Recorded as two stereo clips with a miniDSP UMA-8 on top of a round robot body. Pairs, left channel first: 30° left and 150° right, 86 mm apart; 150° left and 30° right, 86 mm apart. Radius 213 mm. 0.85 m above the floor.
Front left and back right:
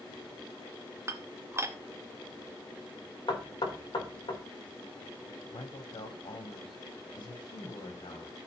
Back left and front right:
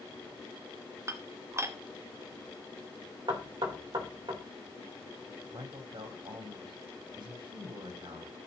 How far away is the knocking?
About 3.5 m.